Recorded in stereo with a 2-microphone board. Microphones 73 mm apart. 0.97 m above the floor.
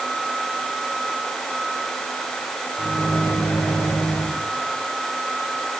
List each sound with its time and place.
2.8 s a microwave: 45° left (ahead or behind), 3 m